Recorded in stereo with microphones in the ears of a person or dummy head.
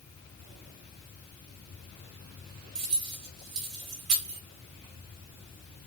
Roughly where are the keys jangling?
Right.